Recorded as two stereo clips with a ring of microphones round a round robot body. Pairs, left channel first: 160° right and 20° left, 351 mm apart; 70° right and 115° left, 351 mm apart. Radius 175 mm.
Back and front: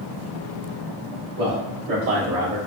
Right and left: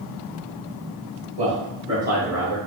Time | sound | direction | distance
1.4 | a man speaking | 45° left | 1.8 m